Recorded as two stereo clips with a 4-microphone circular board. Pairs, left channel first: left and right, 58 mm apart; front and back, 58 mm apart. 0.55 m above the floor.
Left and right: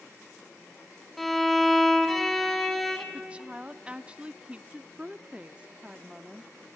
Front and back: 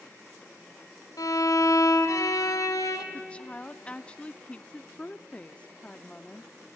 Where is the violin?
Straight ahead, 1.6 m.